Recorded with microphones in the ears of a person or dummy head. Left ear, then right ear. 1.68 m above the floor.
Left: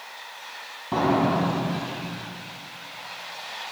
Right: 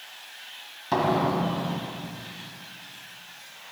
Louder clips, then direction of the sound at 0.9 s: Left 1 dB; 65° right (ahead or behind).